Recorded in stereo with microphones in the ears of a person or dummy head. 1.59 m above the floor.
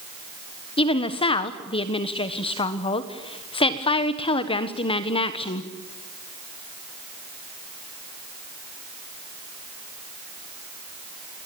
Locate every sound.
0.8 s a woman speaking: 25° left (ahead or behind), 1.4 m